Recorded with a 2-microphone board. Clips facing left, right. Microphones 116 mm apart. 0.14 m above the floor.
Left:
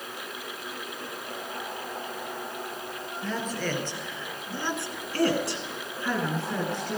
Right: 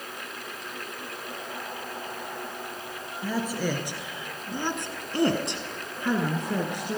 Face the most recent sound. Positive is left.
turn(degrees=-15)  # may be behind; listen again after turning